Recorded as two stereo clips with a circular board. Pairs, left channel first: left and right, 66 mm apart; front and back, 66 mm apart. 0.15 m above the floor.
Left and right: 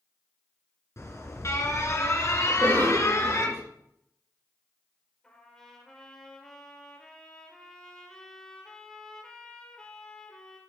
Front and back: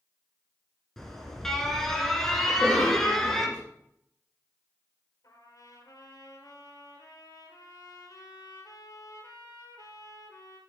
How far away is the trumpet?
About 3.5 m.